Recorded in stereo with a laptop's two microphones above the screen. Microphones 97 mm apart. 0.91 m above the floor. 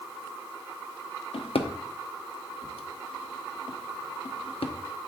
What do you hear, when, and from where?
1.3 s a drawer: 85° left, 0.7 m